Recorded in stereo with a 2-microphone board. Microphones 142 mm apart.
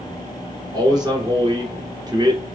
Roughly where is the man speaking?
Right.